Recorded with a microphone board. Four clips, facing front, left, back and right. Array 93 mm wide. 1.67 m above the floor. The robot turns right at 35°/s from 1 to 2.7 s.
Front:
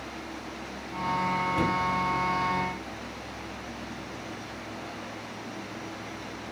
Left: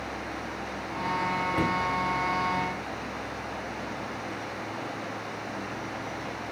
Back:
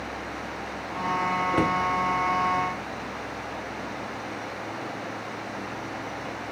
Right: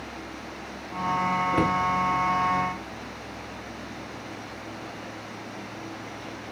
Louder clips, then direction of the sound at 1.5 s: Right 4 dB, back 5 dB; 145° right.